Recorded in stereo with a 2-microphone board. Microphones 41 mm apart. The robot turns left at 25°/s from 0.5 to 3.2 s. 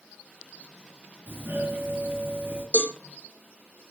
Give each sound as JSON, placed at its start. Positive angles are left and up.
{"t": 1.3, "sound": "a doorbell", "azimuth_deg": -70, "distance_m": 3.0}
{"t": 2.7, "sound": "a cowbell", "side_deg": 45, "distance_m": 1.2}